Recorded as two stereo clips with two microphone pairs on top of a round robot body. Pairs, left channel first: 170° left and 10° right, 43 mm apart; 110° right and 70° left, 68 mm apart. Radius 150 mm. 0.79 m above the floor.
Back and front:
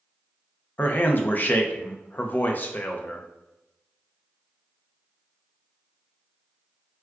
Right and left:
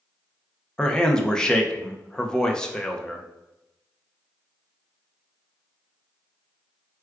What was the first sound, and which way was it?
A man speaking, 175° left.